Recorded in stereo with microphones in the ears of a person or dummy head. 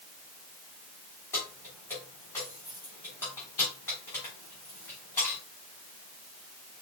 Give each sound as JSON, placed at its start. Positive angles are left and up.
{"t": 1.3, "sound": "keys jangling", "side_deg": 10, "distance_m": 3.0}